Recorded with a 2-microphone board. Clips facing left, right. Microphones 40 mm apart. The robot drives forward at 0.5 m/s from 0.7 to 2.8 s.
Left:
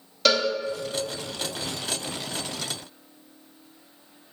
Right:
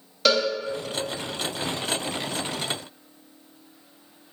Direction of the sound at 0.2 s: 5° right (ahead or behind).